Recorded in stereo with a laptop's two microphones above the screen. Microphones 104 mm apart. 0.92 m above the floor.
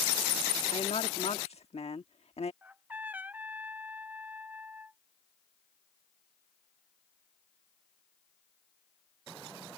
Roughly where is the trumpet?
Centre.